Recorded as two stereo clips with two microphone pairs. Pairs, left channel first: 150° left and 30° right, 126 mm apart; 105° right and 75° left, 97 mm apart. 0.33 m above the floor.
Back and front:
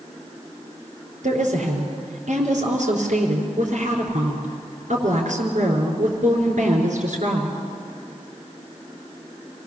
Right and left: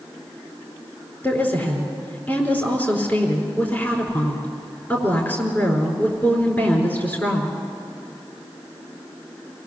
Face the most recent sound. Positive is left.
turn(degrees=-35)